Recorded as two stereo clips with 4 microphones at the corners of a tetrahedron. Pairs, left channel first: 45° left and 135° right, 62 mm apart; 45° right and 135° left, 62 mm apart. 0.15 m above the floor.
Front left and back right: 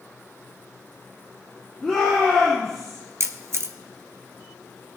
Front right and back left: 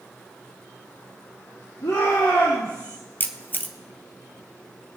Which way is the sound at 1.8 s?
35° right.